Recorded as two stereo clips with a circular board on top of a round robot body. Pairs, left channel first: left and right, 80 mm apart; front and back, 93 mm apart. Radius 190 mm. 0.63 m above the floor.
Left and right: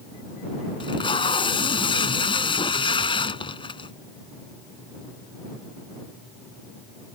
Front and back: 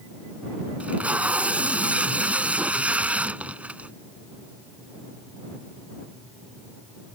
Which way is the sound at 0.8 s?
105° left.